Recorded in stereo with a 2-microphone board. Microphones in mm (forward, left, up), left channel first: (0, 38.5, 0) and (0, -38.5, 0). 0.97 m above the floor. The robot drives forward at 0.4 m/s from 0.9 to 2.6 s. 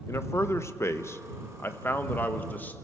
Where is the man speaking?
35° left (ahead or behind), 0.8 m; by 2.8 s 25° left (ahead or behind), 1.2 m.